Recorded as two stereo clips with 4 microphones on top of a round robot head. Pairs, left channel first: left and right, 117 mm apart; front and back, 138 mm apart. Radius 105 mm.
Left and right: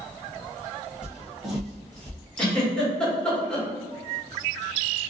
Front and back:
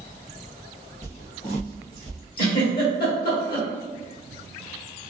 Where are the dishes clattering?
No dishes clattering in this recording.